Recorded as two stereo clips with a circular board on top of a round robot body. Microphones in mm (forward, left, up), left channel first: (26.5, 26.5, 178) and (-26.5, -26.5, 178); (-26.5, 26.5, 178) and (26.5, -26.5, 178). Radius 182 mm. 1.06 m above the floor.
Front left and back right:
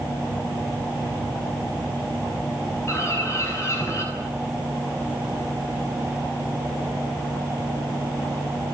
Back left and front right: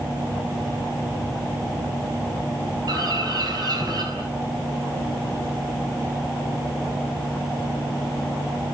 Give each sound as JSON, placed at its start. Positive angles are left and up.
{"t": 2.9, "sound": "a bird", "azimuth_deg": -10, "distance_m": 7.0}